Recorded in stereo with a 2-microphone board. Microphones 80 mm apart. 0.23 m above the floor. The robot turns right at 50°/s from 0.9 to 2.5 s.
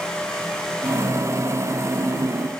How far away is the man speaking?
No man speaking in this recording.